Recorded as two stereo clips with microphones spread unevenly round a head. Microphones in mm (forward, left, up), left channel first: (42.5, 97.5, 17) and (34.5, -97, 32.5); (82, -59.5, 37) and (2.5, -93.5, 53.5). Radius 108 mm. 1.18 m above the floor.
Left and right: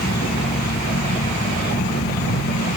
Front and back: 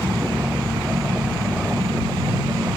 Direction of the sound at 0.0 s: 140° left.